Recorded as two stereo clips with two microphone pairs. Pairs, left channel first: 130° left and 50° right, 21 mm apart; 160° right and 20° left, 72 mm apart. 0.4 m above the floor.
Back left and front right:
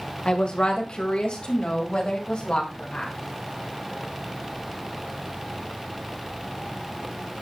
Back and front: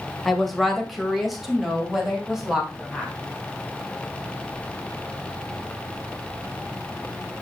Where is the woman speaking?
115° left, 1.7 m; by 3.1 s 105° left, 3 m.